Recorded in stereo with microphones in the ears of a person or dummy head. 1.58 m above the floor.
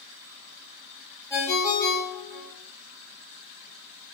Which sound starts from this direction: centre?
A ringtone, at 1.3 s.